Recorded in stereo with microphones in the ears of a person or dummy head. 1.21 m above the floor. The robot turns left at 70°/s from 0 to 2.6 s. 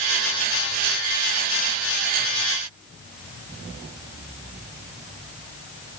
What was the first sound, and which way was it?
Only background noise.